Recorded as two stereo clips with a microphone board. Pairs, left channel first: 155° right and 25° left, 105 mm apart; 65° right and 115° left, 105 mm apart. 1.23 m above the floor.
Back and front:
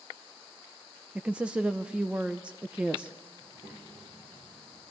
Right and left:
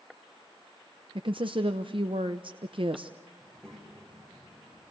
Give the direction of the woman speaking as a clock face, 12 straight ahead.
9 o'clock.